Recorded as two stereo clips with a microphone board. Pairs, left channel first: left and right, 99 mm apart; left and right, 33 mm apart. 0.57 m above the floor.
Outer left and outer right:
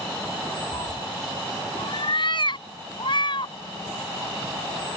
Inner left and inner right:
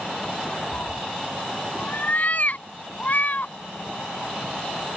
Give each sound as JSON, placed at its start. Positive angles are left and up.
{"t": 0.7, "sound": "a cat meowing", "side_deg": 55}